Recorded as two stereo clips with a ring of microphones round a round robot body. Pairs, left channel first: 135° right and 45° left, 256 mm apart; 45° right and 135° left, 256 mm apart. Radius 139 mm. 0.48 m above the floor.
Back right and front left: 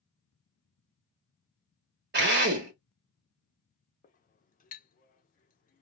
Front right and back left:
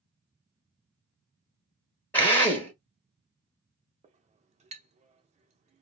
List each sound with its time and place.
2.1 s a drill: 35° left, 1.3 m
4.0 s a clink: 175° right, 0.6 m